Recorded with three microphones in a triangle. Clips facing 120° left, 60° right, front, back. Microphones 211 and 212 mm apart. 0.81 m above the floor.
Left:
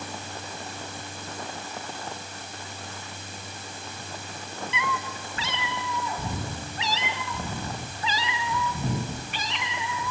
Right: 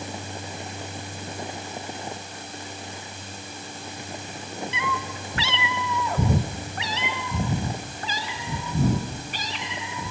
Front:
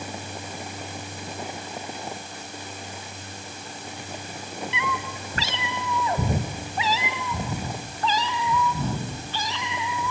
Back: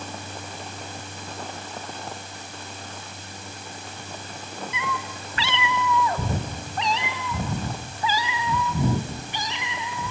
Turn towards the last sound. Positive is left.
turn(degrees=-110)